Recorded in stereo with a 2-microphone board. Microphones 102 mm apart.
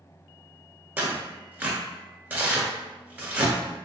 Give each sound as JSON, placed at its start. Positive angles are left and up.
{"t": 1.0, "sound": "tearing paper", "side_deg": -20, "distance_m": 1.0}